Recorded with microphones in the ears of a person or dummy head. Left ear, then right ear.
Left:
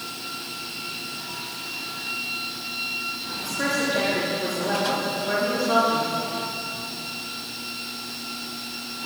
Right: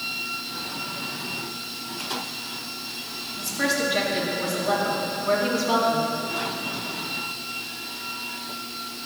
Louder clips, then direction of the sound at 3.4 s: Right 1 dB; 50° right (ahead or behind).